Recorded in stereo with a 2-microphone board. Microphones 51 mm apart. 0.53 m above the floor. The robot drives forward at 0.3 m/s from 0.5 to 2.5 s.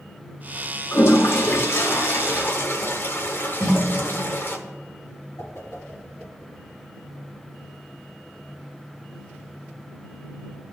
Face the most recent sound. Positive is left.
turn(degrees=75)  # may be behind; listen again after turning